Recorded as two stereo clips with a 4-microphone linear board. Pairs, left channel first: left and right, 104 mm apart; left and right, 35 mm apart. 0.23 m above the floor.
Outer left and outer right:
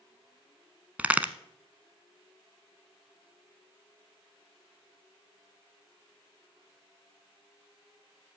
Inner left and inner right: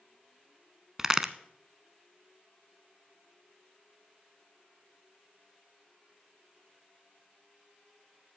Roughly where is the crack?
Centre.